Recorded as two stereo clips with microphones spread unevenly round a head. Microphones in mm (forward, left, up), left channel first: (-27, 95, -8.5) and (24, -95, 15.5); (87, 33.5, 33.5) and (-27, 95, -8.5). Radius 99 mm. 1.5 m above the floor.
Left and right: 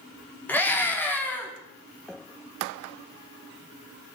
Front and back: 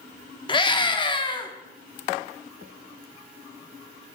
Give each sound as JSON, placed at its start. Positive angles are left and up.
{"t": 0.5, "sound": "a scream", "azimuth_deg": 25, "distance_m": 3.5}